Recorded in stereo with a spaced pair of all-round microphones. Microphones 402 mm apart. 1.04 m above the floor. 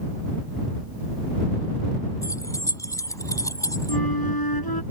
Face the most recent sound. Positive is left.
turn(degrees=60)  # may be behind; listen again after turning